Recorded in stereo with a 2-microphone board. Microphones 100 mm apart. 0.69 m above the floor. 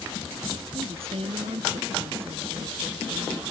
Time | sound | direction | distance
0.7 | a woman speaking | 75° right (ahead or behind) | ?